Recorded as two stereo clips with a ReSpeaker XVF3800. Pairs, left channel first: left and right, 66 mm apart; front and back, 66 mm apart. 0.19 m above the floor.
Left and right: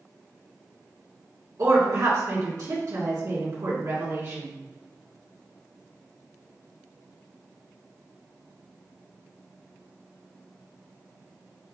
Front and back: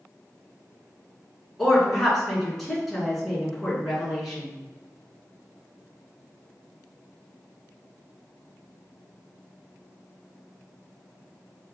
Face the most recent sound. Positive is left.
turn(degrees=-85)